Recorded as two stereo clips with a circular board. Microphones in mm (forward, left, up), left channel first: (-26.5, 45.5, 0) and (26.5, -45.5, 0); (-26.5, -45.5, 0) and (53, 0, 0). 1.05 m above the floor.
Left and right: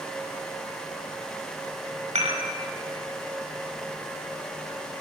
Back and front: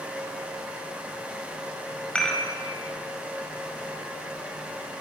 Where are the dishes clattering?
70° right, 4.5 m.